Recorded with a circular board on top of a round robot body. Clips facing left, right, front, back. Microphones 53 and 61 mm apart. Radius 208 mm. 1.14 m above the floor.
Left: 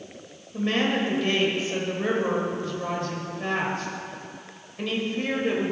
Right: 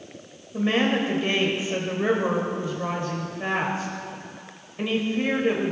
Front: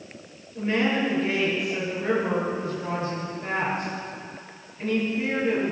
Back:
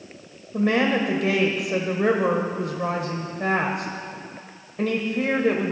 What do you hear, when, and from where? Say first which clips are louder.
0.5 s a woman speaking: right 2 dB, back 3 dB; 170° right, 1.2 m